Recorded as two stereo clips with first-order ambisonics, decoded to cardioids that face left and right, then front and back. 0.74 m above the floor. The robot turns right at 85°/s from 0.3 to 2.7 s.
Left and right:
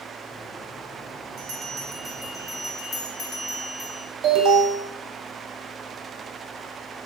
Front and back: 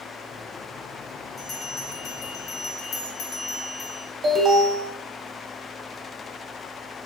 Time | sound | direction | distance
1.4 | a bell | 75° right | 0.8 m
4.2 | an alarm | 125° right | 0.6 m